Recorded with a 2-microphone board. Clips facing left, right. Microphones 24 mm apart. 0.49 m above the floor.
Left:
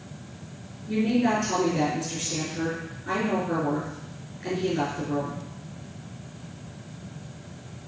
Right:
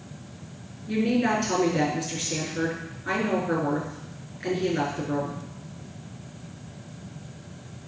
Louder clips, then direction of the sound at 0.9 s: Even; 25° right (ahead or behind).